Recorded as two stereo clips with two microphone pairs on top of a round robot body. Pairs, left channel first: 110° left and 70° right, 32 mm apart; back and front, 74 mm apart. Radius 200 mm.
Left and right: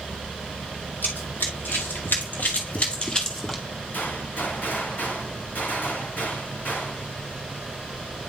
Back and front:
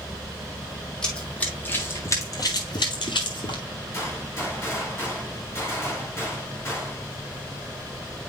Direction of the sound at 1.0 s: 100° left.